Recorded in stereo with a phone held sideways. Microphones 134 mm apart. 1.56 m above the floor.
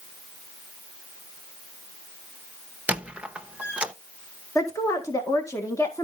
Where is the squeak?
10° right (ahead or behind), 1.0 m.